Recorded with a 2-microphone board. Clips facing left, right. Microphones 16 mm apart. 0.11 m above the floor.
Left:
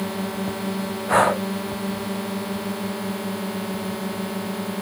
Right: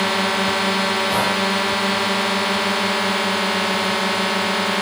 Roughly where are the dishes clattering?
No dishes clattering in this recording.